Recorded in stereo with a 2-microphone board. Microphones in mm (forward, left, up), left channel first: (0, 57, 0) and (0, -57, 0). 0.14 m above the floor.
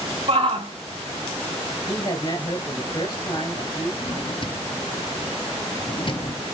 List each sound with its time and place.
0.3 s a shout: 60° right (ahead or behind), 3 m
1.9 s a man speaking: 45° left (ahead or behind), 3 m
4.0 s a drawer: 50° left (ahead or behind), 1.0 m